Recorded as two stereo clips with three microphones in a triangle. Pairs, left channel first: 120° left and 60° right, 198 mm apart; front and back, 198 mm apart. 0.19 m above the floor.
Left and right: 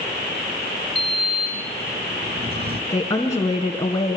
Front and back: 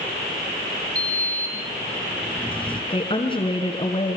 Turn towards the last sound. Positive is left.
turn(degrees=55)